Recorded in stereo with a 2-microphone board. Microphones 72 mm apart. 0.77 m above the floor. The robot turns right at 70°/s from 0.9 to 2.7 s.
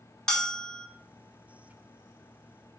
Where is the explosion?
I don't hear an explosion.